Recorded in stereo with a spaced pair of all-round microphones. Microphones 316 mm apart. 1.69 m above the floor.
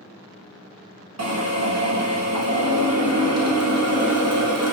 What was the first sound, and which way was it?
A drill, 60° right (ahead or behind).